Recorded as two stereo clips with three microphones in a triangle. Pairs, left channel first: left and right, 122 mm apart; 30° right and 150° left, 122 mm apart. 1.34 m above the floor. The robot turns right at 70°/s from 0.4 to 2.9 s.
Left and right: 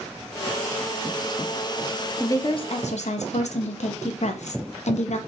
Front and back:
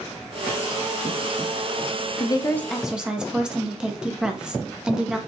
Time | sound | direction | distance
2.2 | a woman speaking | 20° left | 0.5 m